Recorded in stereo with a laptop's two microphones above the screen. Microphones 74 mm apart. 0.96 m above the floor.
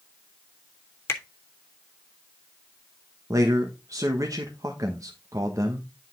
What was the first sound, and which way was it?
A finger snap, 35° left (ahead or behind).